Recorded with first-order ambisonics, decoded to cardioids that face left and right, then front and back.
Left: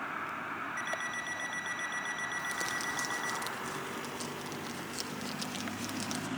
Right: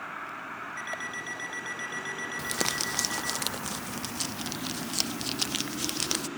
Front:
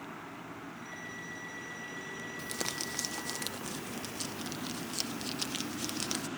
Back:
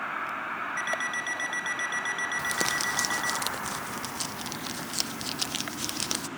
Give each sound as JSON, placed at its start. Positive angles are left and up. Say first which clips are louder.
{"t": 0.8, "sound": "an alarm clock", "louder": "right 2 dB, back 15 dB", "azimuth_deg": 180, "distance_m": 4.5}
{"t": 2.4, "sound": "crumpling", "louder": "right 4 dB, back 6 dB", "azimuth_deg": -120, "distance_m": 0.6}